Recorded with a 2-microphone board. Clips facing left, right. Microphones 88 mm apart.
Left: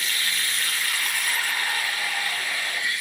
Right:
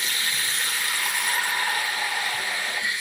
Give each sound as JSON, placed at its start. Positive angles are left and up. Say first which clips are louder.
{"t": 0.0, "sound": "running water", "louder": "even", "side_deg": -25, "distance_m": 1.8}